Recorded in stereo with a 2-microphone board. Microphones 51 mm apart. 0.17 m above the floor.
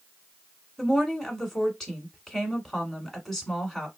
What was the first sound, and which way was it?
A woman speaking, 10° left (ahead or behind).